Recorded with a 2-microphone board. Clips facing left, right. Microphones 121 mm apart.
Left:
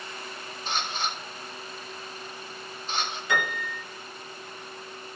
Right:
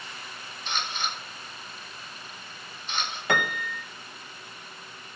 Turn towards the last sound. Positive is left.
turn(degrees=-60)  # may be behind; listen again after turning